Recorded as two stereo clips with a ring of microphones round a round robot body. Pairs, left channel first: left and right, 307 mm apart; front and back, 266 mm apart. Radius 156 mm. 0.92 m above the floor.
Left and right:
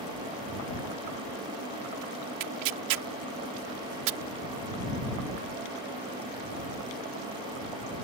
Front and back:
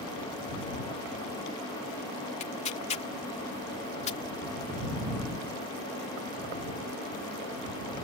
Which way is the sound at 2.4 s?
70° right.